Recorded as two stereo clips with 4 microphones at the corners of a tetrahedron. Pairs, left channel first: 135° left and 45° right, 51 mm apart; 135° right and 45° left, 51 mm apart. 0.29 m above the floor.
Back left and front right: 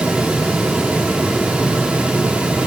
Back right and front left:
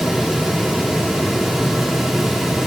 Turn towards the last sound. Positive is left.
No sound to turn to.